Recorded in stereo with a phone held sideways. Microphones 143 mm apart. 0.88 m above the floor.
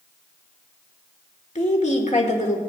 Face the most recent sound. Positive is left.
turn(degrees=55)  # may be behind; listen again after turning